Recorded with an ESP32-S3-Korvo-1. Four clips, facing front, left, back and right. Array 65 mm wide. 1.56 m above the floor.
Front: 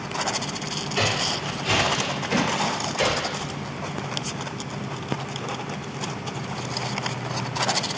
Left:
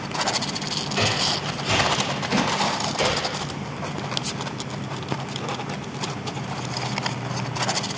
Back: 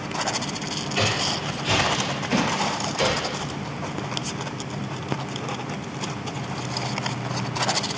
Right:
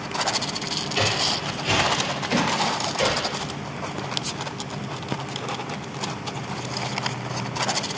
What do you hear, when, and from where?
0.9 s footsteps: 105° right, 1.9 m; by 3.5 s 15° left, 1.5 m